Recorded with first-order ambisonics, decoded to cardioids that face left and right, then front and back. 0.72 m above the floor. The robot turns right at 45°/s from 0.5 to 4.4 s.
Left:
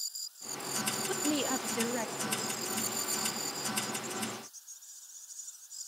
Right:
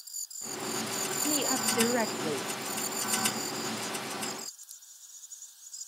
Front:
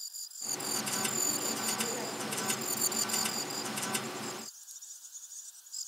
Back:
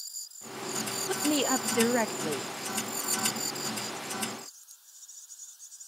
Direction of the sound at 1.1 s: 165° left.